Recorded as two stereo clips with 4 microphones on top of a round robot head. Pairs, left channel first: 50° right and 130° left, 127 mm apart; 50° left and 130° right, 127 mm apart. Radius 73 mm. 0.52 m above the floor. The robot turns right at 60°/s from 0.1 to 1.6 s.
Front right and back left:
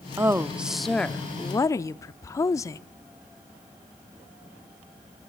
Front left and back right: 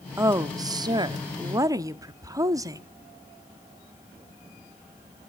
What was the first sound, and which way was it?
A woman speaking, straight behind.